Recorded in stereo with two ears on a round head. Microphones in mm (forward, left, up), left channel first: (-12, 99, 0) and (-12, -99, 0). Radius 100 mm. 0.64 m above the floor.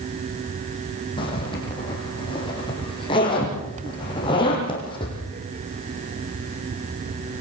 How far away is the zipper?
About 6.5 m.